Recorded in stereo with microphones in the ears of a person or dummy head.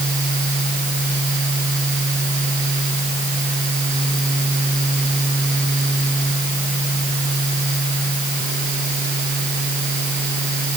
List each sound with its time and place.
Only background noise.